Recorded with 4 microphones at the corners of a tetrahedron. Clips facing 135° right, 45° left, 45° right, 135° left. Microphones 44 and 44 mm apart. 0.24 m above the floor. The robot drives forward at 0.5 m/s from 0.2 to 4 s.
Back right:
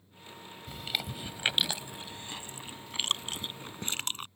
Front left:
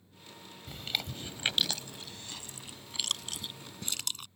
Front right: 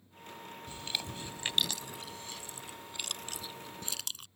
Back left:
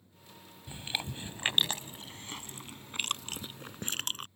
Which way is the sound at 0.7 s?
135° left.